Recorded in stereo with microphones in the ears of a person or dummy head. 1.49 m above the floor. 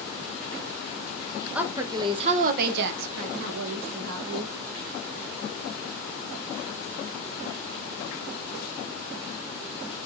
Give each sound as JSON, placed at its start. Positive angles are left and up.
{"t": 1.6, "sound": "a woman speaking", "side_deg": -5, "distance_m": 0.8}